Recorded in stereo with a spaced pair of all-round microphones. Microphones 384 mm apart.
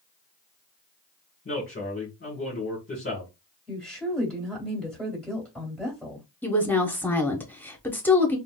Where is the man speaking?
30° left (ahead or behind), 1.4 m.